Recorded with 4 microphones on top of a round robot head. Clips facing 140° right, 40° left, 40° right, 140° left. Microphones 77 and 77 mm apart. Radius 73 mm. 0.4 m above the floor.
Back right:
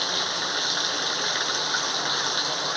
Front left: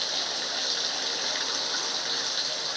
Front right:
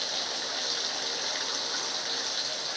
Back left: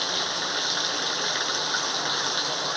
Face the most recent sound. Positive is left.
turn(degrees=175)